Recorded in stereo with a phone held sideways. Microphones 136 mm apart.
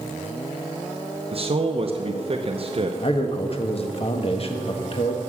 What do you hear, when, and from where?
1.3 s a man speaking: 45° right (ahead or behind), 0.8 m
3.0 s a man speaking: 45° left (ahead or behind), 1.5 m